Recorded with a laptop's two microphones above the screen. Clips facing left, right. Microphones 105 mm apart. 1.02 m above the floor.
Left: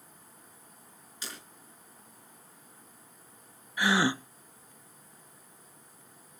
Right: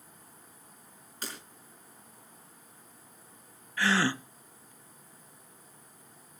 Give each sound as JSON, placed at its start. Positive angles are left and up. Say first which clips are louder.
{"t": 1.2, "sound": "breaking glass", "louder": "right 3 dB", "side_deg": -55, "distance_m": 5.5}
{"t": 3.8, "sound": "a gasp", "louder": "left 1 dB", "side_deg": 15, "distance_m": 0.6}